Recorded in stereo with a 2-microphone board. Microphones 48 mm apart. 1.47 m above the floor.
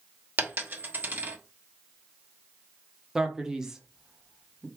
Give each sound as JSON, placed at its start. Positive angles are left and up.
{"t": 0.4, "sound": "a dropped coin", "side_deg": -45, "distance_m": 1.1}
{"t": 3.1, "sound": "a man speaking", "side_deg": -15, "distance_m": 1.2}